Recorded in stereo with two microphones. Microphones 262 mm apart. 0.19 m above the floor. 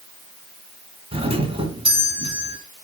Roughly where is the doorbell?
Right.